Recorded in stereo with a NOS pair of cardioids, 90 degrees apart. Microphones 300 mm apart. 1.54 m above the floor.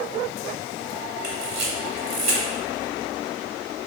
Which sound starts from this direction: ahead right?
A camera shutter, at 1.2 s.